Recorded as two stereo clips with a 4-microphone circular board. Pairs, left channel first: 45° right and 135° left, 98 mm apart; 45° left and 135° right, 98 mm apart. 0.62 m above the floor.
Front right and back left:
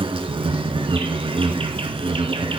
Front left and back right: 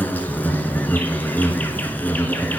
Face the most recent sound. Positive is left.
turn(degrees=120)